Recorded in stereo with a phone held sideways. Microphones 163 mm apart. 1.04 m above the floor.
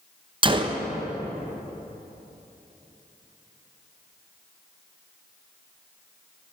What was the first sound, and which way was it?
A gunshot, 30° right (ahead or behind).